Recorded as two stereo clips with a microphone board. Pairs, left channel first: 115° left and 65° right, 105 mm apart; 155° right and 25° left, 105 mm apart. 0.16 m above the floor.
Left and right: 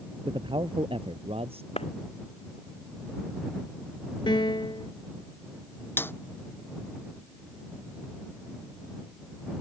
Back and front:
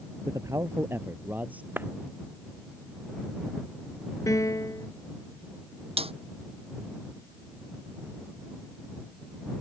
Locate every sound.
0.3 s a man speaking: 30° right; by 1.7 s 55° right
1.8 s a clap: 95° left
4.3 s a piano: 150° left
6.0 s a snare drum: 45° left